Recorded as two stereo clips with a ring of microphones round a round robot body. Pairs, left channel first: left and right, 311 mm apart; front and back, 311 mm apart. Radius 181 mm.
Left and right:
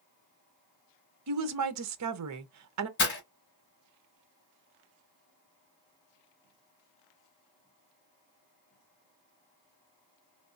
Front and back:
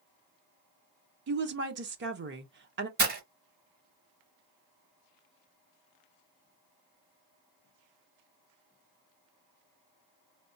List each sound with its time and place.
1.3 s a woman speaking: 125° right, 0.9 m
3.0 s breaking glass: 135° left, 1.0 m